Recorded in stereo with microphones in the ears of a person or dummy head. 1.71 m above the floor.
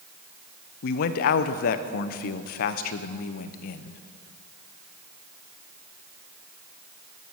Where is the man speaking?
50° left (ahead or behind), 0.7 m.